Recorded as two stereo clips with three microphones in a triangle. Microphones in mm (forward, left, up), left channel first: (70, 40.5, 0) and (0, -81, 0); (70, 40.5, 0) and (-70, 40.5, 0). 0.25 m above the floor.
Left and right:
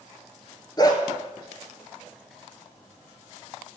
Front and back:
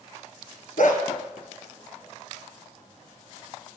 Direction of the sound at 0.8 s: Straight ahead.